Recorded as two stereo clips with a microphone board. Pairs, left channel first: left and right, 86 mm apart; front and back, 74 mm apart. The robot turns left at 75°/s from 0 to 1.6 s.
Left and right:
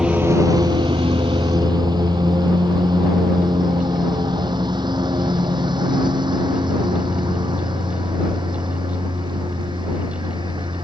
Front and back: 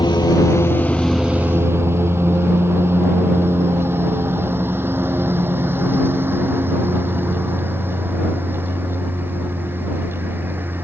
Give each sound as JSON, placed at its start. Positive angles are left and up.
{"t": 0.0, "sound": "a lawn mower", "azimuth_deg": -5}